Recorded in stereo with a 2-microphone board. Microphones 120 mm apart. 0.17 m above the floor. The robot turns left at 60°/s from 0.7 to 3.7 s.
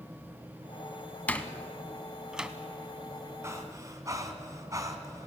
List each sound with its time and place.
1.3 s a door slam: 15° left (ahead or behind), 1.1 m; by 2.5 s 10° right (ahead or behind), 1.1 m
3.4 s breathing: 25° right (ahead or behind), 1.9 m; by 5.3 s 30° right (ahead or behind), 1.9 m